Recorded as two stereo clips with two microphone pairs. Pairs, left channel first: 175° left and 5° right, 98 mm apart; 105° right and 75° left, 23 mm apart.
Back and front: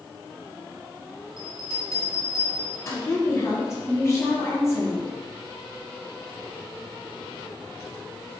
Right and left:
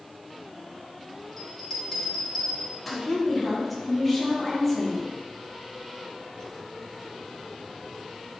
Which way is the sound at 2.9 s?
175° right.